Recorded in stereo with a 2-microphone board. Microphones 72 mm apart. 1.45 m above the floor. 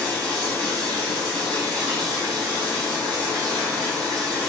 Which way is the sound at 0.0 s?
20° left (ahead or behind).